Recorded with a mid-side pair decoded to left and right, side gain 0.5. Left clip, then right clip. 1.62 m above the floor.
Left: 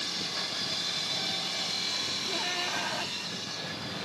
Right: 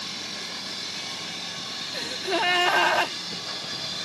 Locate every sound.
1.9 s a gasp: 70° right